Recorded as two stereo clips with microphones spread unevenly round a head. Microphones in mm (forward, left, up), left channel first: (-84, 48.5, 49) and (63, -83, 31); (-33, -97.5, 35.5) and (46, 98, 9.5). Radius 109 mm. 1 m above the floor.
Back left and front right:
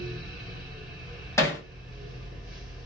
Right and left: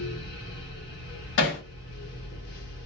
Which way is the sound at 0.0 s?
120° right.